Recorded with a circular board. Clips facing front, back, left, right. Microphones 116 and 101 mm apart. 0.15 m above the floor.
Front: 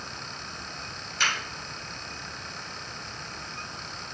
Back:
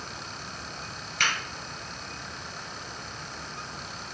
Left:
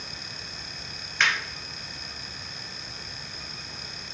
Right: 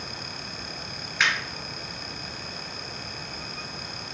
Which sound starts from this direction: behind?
A finger snap, at 1.2 s.